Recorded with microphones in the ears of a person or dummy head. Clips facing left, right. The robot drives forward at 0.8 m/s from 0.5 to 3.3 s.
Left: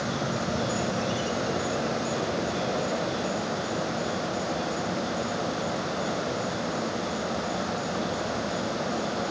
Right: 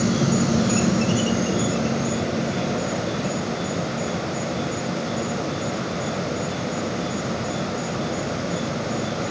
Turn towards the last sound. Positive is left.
turn(degrees=-20)  # may be behind; listen again after turning